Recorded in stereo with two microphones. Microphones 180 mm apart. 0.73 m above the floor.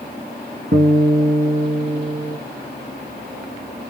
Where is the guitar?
60° right (ahead or behind), 1.8 m.